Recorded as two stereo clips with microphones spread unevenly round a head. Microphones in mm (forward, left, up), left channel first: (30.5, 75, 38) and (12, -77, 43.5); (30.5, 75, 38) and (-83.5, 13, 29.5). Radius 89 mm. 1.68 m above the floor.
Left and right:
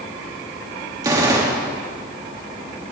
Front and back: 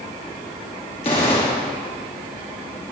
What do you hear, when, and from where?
1.0 s a gunshot: 30° right, 2 m